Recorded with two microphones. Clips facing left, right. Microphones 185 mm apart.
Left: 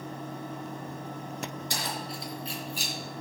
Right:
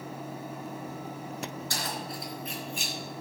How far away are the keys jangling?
About 3.5 m.